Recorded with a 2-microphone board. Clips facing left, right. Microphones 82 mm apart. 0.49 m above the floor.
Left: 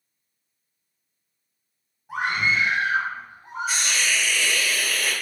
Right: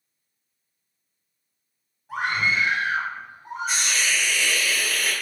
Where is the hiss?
Centre (ahead or behind), 1.1 m.